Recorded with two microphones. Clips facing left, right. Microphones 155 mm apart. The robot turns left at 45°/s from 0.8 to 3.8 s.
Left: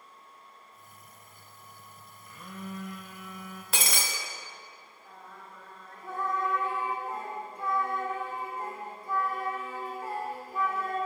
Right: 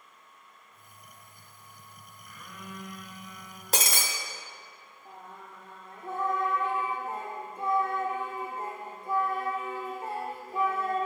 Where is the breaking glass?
40° right (ahead or behind), 0.9 m; by 4.0 s 45° right (ahead or behind), 0.9 m.